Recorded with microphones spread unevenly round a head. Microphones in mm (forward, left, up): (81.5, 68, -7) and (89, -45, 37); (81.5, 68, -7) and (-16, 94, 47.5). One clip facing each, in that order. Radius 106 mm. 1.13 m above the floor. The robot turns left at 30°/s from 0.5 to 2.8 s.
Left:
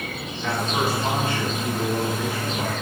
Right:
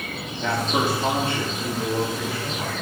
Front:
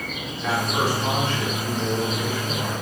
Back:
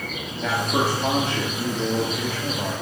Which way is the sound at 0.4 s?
140° right.